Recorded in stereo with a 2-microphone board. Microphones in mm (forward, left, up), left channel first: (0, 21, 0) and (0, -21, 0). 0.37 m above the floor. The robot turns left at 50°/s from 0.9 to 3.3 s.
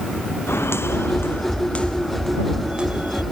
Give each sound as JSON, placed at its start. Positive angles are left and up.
{"t": 0.5, "sound": "footsteps", "side_deg": 80}